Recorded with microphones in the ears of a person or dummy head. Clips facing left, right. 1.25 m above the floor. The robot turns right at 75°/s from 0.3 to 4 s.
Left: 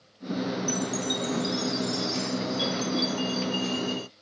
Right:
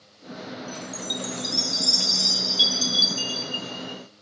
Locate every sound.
0.7 s a chime: 145° left, 0.6 m; by 4.1 s 35° left, 0.6 m